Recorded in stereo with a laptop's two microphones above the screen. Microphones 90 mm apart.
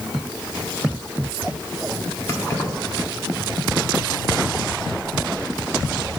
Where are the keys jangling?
30° left (ahead or behind), 1.9 m.